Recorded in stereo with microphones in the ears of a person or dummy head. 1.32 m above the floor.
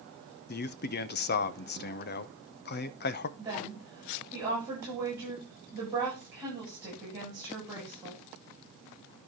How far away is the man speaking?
About 0.8 m.